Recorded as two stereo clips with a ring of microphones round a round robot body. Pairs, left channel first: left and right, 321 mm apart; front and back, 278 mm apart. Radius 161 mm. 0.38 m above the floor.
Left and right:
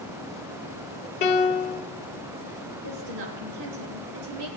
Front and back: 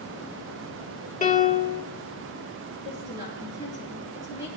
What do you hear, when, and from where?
1.2 s a piano: 50° left, 1.7 m
2.8 s a woman speaking: 100° right, 5 m